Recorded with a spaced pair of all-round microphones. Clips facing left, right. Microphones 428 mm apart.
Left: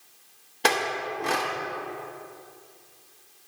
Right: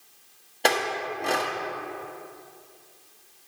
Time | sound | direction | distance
0.6 | a clink | 20° left (ahead or behind) | 1.0 m